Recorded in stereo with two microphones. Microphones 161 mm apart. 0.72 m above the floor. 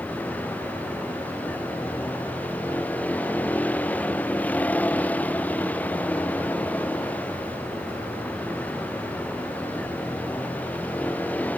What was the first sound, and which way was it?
A vehicle, 10° left (ahead or behind).